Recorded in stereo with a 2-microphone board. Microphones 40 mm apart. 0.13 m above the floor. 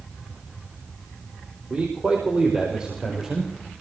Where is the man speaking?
30° right (ahead or behind), 5 m; by 3.5 s 10° right (ahead or behind), 5.5 m.